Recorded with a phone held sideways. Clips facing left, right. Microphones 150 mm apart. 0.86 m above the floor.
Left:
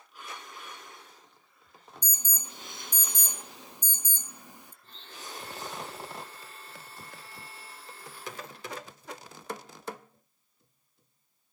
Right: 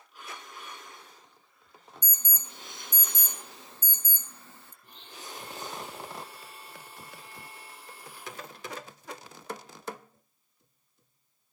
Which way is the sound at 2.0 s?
15° left (ahead or behind).